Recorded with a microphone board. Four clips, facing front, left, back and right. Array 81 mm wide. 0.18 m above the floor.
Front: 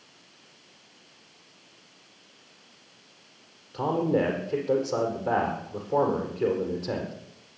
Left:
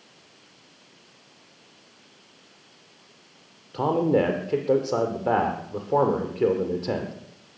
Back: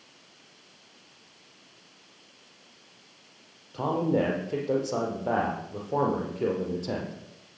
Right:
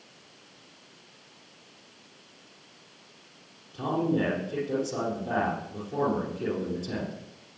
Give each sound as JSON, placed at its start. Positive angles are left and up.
{"t": 3.7, "sound": "a man speaking", "azimuth_deg": 95, "distance_m": 5.0}